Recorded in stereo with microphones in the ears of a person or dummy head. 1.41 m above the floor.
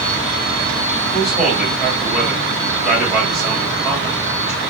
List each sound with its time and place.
1.1 s a man speaking: 5° right (ahead or behind), 1.5 m